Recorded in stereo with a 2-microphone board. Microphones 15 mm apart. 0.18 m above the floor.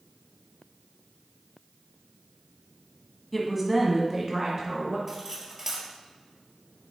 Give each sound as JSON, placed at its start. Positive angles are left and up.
{"t": 3.3, "sound": "a woman speaking", "side_deg": 5, "distance_m": 1.6}
{"t": 5.1, "sound": "cutlery clinking", "side_deg": -25, "distance_m": 2.5}